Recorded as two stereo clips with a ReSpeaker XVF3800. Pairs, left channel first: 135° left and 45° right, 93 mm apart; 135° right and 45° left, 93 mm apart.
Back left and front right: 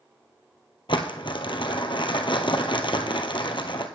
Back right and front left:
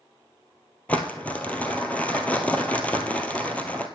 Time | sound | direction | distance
0.9 | crumpling | 150° left | 1.1 m